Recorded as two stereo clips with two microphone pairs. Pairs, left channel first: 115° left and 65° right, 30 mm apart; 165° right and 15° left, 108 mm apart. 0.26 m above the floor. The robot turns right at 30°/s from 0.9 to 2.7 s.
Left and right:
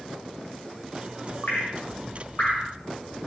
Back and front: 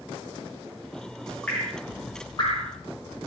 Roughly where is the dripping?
Behind left.